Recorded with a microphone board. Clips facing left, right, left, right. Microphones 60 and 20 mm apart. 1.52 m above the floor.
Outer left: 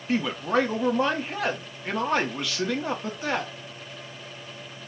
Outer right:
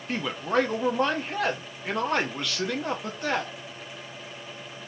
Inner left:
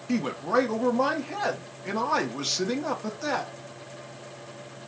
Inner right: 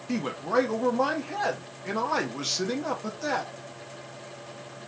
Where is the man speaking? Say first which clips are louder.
Outer left 2 dB, inner left 2 dB; centre (ahead or behind), 0.5 m.